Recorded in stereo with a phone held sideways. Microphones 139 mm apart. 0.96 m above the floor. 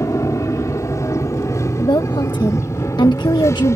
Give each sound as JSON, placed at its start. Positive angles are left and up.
{"t": 0.0, "sound": "an aircraft", "side_deg": 20}
{"t": 1.8, "sound": "a woman speaking", "side_deg": 30}